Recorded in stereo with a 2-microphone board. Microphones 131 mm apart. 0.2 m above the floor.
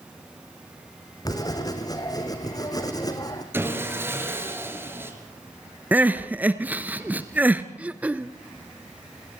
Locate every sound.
1.2 s writing: 30° left (ahead or behind), 2.5 m
3.5 s sawing: 15° right (ahead or behind), 4 m
5.9 s crying: 10° right (ahead or behind), 1.4 m
7.8 s throat clearing: 10° right (ahead or behind), 0.7 m